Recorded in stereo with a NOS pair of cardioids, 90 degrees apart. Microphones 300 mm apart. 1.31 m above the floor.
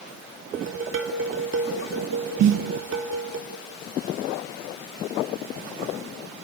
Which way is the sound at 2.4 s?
70° right.